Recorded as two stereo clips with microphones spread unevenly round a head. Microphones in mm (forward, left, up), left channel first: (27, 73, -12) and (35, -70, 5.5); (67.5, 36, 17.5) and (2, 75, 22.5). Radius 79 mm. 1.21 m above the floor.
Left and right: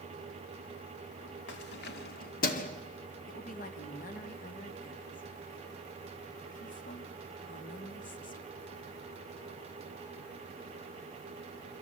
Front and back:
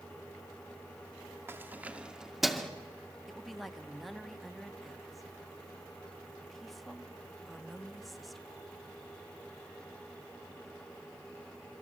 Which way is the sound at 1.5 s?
90° left.